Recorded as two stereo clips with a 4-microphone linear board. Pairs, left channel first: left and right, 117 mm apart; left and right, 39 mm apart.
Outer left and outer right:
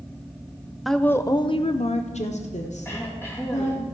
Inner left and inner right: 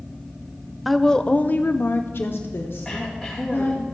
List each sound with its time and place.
0.8 s a woman speaking: centre (ahead or behind), 0.5 m; by 3.9 s 80° left, 1.8 m
2.9 s throat clearing: 20° left (ahead or behind), 2.5 m